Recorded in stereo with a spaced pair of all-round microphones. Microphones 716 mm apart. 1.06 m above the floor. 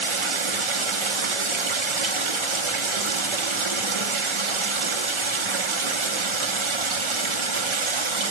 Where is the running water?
45° right (ahead or behind), 0.8 m.